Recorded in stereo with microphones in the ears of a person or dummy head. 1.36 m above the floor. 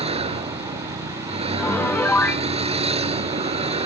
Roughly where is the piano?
Centre.